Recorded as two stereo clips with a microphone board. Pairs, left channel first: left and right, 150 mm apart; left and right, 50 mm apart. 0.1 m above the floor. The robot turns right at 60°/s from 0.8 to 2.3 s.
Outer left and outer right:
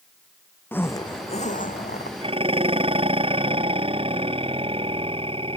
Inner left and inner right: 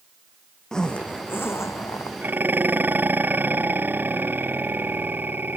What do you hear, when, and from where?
0.7 s a zipper: 15° left; by 2.1 s 95° left
2.2 s dishes clattering: 35° right (ahead or behind); by 5.6 s 40° right (ahead or behind)